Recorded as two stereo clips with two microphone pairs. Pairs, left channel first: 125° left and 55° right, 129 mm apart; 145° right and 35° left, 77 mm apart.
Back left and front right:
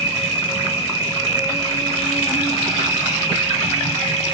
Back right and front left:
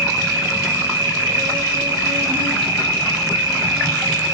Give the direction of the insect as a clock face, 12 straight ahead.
9 o'clock.